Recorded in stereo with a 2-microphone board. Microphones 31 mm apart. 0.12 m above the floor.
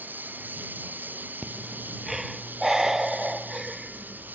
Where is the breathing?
15° right (ahead or behind).